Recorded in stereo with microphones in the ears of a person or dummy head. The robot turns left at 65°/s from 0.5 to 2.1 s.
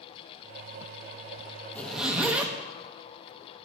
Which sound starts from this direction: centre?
A zipper, at 1.8 s.